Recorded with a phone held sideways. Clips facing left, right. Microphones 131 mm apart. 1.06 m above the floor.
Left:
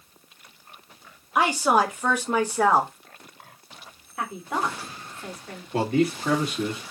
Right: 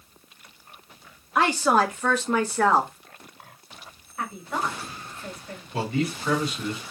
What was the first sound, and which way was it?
A woman speaking, 10° left (ahead or behind).